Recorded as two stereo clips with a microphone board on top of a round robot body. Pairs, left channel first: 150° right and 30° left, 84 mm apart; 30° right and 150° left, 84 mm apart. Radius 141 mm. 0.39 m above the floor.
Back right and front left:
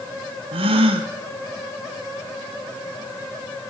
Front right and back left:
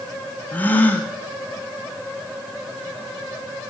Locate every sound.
0.5 s a gasp: 40° left, 0.7 m